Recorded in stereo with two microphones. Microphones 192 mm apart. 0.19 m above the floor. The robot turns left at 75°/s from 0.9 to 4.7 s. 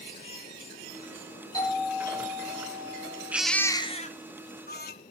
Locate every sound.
1.5 s a doorbell: 20° left, 8 m; by 3.4 s 115° right, 8 m
3.3 s a baby crying: 170° right, 1.4 m; by 4.9 s 85° left, 1.4 m